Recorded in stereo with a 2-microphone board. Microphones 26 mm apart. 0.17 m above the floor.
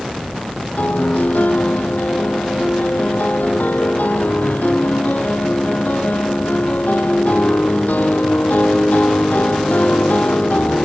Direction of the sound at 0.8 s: 75° left (ahead or behind).